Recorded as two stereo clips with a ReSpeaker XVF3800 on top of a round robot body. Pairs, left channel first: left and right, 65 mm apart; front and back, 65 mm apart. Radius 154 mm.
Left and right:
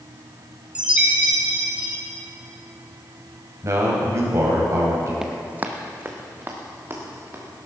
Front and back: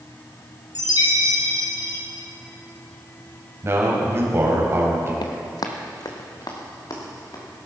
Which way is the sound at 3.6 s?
130° right.